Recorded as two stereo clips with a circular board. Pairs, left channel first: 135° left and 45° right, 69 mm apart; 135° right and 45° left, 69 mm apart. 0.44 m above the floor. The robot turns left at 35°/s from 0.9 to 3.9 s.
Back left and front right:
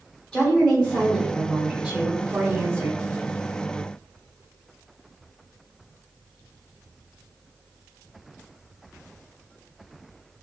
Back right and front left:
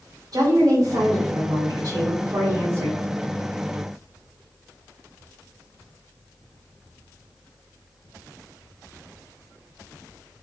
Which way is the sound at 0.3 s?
45° left.